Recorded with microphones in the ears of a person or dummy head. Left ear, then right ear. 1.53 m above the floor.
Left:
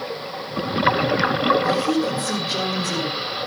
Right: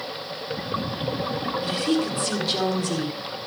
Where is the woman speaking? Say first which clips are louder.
Left 4 dB; 65° right (ahead or behind), 4 m; by 3.1 s 55° right (ahead or behind), 5 m.